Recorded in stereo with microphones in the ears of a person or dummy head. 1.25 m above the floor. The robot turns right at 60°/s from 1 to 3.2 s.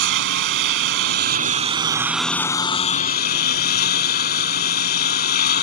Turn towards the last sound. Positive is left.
turn(degrees=60)